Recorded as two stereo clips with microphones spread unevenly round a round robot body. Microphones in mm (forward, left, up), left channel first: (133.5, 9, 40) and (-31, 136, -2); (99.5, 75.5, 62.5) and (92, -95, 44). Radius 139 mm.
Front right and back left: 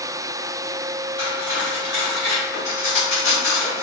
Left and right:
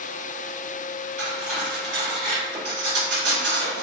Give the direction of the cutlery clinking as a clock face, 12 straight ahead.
4 o'clock.